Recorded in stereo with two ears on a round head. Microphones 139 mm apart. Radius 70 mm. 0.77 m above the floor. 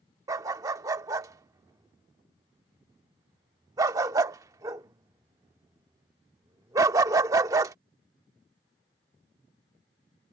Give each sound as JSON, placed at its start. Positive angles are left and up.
{"t": 0.3, "sound": "a dog barking", "side_deg": -20}